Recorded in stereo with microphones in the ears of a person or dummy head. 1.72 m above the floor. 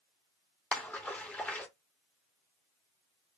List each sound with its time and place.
0.7 s a splash: 10° left (ahead or behind), 0.8 m